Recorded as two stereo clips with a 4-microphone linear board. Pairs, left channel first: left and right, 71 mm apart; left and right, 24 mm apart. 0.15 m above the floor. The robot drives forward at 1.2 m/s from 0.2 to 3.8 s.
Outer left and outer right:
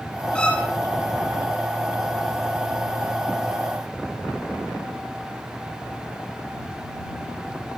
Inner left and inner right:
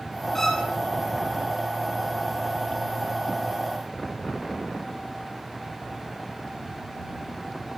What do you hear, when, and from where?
0.3 s a violin: 15° left (ahead or behind), 4.5 m